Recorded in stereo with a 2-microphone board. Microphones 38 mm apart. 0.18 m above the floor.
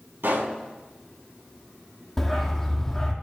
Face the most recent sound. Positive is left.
turn(degrees=5)  # may be behind; listen again after turning